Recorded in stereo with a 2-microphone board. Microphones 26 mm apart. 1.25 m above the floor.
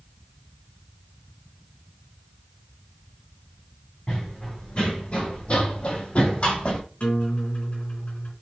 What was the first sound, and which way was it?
Running footsteps, 35° left (ahead or behind).